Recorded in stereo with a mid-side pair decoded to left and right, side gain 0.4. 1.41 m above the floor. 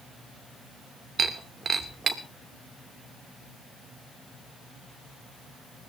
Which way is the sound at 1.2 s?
50° right.